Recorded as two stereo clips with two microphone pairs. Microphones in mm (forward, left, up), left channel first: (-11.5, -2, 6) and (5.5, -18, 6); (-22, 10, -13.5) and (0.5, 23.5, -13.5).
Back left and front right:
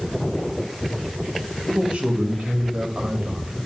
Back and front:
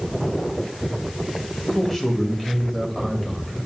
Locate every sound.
1.7 s a man speaking: 75° right, 1.9 m